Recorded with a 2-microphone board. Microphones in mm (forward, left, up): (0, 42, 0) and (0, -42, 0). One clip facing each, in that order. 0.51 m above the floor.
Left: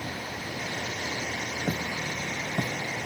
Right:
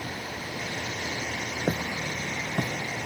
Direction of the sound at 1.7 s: 30° right (ahead or behind).